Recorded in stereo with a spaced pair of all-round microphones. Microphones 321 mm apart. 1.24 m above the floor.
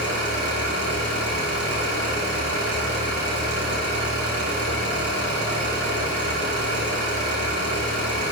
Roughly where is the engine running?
Right.